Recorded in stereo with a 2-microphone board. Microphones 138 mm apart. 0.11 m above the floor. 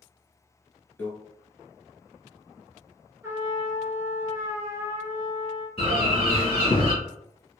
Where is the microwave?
10° left (ahead or behind), 1.4 m.